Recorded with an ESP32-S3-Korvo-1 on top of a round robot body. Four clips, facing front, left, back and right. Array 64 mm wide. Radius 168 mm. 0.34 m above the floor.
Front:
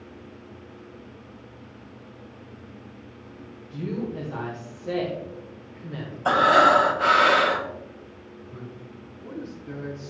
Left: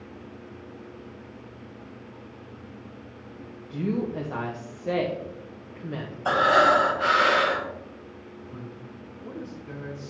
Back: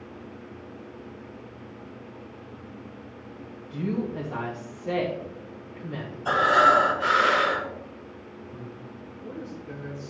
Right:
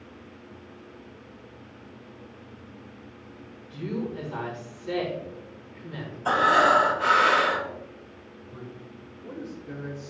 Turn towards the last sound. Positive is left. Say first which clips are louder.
# right 1 dB, front 1 dB
turn(degrees=55)